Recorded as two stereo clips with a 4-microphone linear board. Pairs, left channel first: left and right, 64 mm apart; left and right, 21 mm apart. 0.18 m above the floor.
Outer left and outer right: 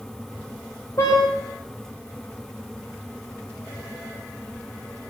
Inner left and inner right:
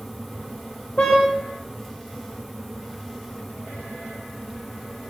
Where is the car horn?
55° left (ahead or behind), 8 m.